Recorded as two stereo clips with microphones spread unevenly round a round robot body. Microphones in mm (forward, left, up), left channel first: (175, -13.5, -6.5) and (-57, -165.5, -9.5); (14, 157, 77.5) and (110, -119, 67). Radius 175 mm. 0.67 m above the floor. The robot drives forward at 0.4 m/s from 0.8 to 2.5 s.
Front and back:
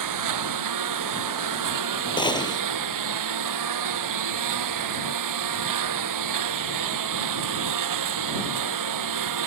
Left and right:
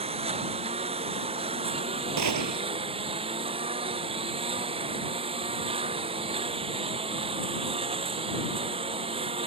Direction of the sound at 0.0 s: 145° right.